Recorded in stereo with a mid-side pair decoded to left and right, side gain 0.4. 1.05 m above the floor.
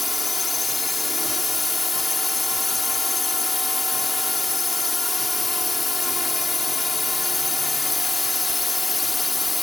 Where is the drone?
15° left.